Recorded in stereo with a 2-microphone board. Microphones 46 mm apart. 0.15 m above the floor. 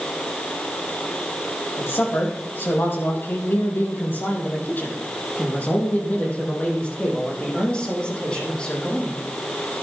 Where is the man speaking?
65° left (ahead or behind), 4 m; by 9.3 s 20° left (ahead or behind), 5.5 m.